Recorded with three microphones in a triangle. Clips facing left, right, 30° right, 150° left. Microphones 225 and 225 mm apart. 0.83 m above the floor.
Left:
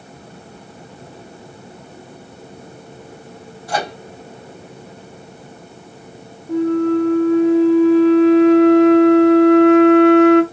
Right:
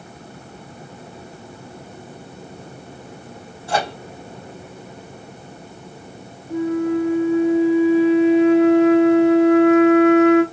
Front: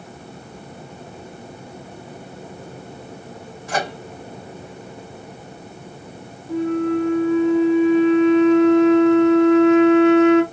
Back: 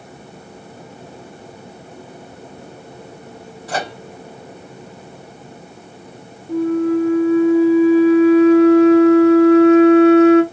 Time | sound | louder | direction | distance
3.7 | a microwave | right 1 dB, even | 150° right | 1.2 m
6.5 | a flute | left 4 dB, back 3 dB | 95° left | 0.7 m